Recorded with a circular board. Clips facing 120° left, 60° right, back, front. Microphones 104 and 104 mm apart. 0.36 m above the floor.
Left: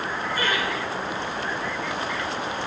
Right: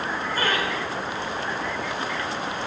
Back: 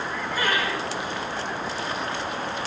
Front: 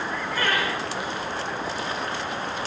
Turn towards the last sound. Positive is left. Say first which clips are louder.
# right 1 dB, even
turn(degrees=-105)